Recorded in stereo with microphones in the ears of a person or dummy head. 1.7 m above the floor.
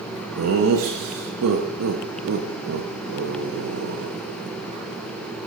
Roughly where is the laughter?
Right.